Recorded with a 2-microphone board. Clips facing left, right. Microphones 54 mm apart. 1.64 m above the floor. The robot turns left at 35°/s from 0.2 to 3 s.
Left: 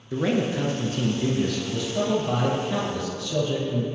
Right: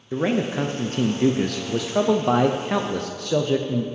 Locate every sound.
0.1 s a man speaking: 25° right, 0.6 m; by 3.9 s 120° right, 0.6 m